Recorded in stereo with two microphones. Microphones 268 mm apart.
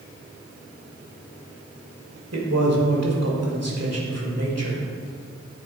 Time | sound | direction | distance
2.3 | a man speaking | 70° right (ahead or behind) | 1.6 m